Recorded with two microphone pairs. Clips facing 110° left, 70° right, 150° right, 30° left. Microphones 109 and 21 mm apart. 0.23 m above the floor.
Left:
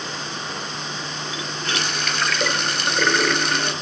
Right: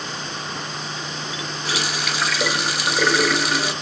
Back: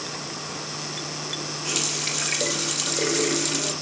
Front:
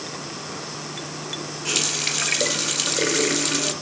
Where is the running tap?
5° left, 0.7 m.